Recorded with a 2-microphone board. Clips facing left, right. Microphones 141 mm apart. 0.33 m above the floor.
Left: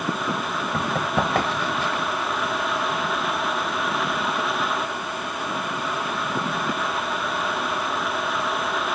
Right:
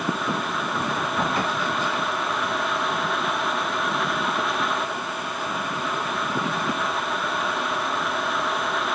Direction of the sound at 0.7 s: 75° left (ahead or behind).